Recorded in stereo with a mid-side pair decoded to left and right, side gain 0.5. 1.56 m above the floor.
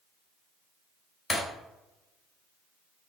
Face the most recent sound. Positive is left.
turn(degrees=15)